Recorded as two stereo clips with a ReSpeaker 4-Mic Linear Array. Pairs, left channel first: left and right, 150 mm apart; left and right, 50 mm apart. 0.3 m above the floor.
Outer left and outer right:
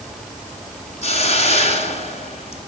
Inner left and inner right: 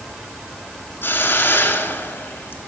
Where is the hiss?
45° left (ahead or behind), 1.1 m.